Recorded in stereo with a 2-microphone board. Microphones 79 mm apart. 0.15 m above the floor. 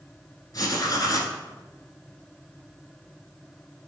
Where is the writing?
55° left (ahead or behind), 1.0 m.